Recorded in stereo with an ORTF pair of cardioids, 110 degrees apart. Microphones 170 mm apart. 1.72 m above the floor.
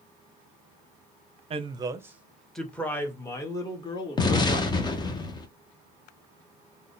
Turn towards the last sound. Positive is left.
turn(degrees=25)